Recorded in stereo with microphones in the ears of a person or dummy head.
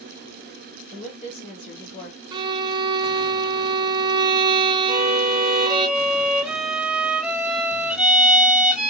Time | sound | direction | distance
0.9 | a woman speaking | 45° left (ahead or behind) | 1.6 m
2.3 | a violin | 25° right (ahead or behind) | 0.6 m
4.9 | a violin | 5° right (ahead or behind) | 0.9 m